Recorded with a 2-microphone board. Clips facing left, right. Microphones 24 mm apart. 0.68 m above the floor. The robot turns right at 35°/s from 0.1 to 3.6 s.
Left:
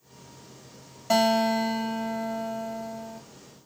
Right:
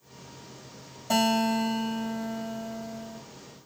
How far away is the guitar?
About 1.5 m.